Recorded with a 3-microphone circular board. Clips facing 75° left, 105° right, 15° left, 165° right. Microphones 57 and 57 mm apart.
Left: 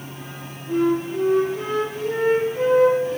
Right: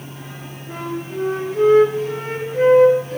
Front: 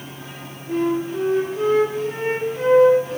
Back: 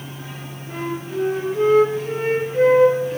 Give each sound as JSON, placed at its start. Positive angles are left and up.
{"t": 0.7, "sound": "a flute", "azimuth_deg": -115, "distance_m": 5.0}